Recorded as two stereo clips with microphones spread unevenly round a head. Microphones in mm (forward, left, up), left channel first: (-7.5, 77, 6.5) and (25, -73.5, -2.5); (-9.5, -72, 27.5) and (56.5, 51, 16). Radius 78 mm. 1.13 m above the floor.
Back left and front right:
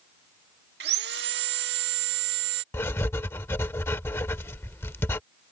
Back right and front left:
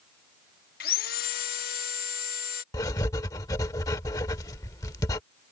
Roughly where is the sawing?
Right.